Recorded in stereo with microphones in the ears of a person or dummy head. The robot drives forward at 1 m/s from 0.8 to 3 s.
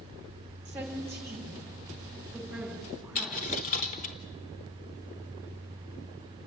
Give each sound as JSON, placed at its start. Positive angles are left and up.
{"t": 0.7, "sound": "a woman speaking", "side_deg": -10, "distance_m": 2.5}
{"t": 3.1, "sound": "a dropped coin", "side_deg": 30, "distance_m": 0.8}